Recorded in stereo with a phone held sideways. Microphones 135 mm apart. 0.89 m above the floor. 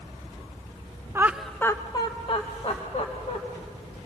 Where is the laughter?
20° right (ahead or behind), 0.6 m; by 3.4 s 50° left (ahead or behind), 1.9 m.